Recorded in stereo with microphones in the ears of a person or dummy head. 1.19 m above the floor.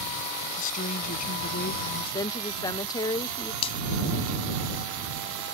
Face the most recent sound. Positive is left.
turn(degrees=35)  # may be behind; listen again after turning